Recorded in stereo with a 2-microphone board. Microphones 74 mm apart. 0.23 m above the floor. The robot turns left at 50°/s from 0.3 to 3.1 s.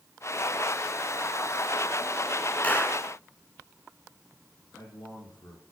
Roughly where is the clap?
Left.